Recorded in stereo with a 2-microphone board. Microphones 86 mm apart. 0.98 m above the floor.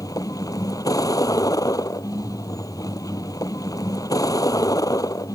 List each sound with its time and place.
0.0 s a vehicle: 40° left (ahead or behind)